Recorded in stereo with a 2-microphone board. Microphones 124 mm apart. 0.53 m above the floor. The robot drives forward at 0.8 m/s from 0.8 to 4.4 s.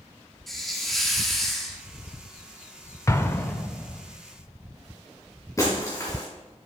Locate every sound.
0.5 s a hiss: centre (ahead or behind), 1.2 m
3.1 s an explosion: 25° left (ahead or behind), 0.5 m; by 4.0 s 10° left (ahead or behind), 1.2 m
5.6 s breaking glass: 25° left (ahead or behind), 3 m